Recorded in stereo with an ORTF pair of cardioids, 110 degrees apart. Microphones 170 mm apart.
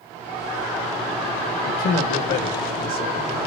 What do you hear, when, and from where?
1.6 s a man speaking: 70° left, 2.0 m